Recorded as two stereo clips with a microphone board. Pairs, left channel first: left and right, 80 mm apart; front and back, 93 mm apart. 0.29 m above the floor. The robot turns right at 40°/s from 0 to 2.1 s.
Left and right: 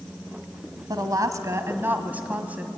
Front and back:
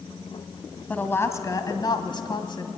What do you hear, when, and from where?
0.9 s a woman speaking: 70° right, 1.7 m; by 2.7 s 20° right, 1.7 m